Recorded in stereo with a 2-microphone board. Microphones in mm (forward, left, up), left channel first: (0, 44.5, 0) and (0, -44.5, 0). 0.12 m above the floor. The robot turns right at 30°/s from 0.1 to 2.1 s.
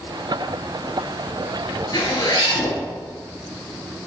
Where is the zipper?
55° left (ahead or behind), 1.9 m; by 2.8 s 50° left (ahead or behind), 1.9 m.